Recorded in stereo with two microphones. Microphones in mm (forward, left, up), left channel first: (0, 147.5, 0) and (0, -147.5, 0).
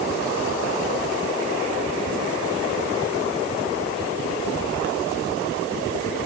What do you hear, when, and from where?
Only background noise.